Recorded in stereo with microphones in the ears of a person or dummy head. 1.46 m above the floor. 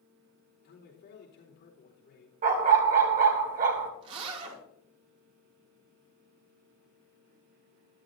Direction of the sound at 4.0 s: 25° right (ahead or behind).